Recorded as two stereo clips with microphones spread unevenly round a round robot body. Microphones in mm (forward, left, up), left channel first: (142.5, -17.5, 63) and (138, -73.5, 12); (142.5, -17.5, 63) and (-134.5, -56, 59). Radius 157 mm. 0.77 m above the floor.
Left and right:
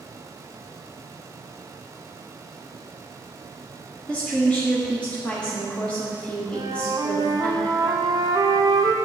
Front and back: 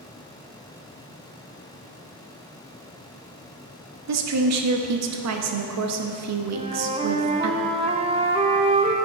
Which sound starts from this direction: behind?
A woman speaking, at 4.1 s.